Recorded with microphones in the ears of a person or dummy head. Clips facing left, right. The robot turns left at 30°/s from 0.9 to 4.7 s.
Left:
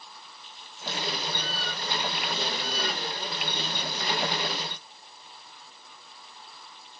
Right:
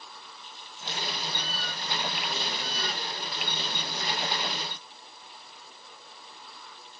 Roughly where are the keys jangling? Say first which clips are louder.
Left 4 dB; right.